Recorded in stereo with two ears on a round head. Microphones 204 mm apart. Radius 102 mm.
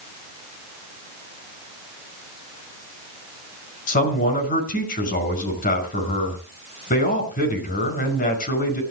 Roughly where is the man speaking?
Left.